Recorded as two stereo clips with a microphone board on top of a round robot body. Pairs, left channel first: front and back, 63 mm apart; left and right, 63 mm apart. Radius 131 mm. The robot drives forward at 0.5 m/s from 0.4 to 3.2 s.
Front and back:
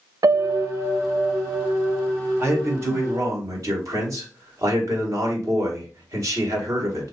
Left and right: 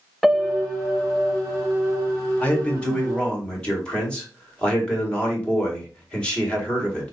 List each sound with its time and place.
0.2 s a piano: straight behind, 0.6 m
2.4 s a man speaking: 150° left, 1.5 m; by 7.1 s 160° left, 1.7 m